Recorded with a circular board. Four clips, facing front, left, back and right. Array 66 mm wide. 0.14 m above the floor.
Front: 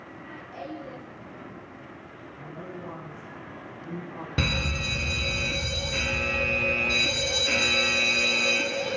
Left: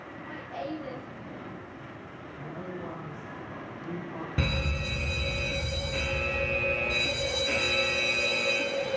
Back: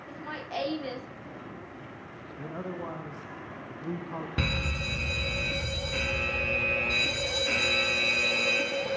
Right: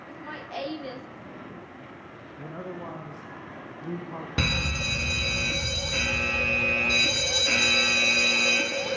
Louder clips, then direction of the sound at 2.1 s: Right 2 dB, back 4 dB; 145° right.